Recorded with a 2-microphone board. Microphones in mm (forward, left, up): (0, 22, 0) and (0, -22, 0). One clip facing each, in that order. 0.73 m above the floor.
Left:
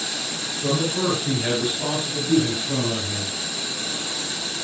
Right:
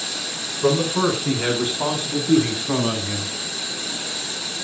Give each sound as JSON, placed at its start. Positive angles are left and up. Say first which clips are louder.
{"t": 0.6, "sound": "a man speaking", "louder": "right 4 dB", "side_deg": -50, "distance_m": 8.5}